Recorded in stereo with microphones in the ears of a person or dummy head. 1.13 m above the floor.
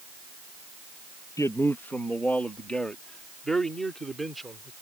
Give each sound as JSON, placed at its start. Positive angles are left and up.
{"t": 1.4, "sound": "a man speaking", "side_deg": 15}